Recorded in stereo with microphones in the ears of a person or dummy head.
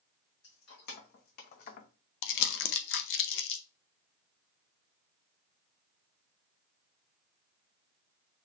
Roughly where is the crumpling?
Left.